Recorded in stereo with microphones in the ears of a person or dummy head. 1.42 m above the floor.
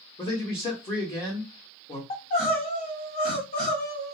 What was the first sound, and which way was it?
A man speaking, 25° left (ahead or behind).